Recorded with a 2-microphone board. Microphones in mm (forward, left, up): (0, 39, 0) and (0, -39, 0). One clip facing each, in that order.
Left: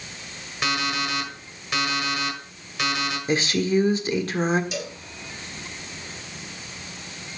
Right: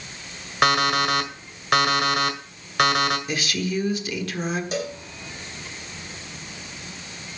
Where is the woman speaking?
30° left (ahead or behind), 1.4 m.